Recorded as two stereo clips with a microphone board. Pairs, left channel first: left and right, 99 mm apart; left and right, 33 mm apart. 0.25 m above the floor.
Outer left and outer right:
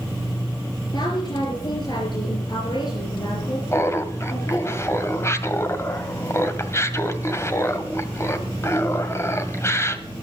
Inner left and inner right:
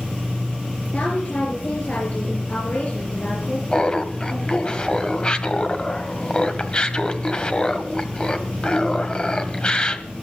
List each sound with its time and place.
0.9 s a woman speaking: 50° left (ahead or behind), 4.5 m
3.7 s laughter: 30° left (ahead or behind), 1.5 m